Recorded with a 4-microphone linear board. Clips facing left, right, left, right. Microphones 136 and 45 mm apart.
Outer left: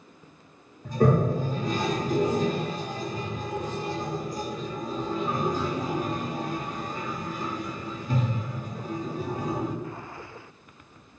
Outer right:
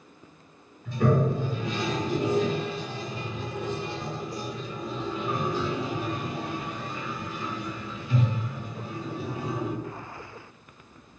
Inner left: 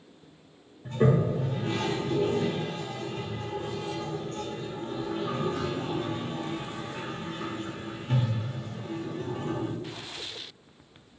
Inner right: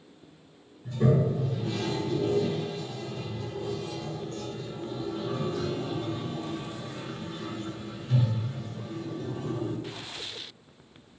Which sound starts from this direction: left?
A toilet flushing, at 0.8 s.